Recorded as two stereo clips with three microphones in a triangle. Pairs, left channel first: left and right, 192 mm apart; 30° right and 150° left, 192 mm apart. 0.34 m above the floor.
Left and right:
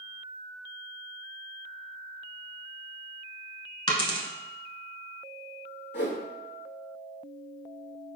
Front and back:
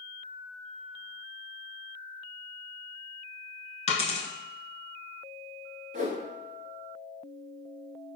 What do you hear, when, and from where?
3.9 s a dropped coin: 25° left, 0.6 m
5.9 s a whoosh: 110° left, 0.6 m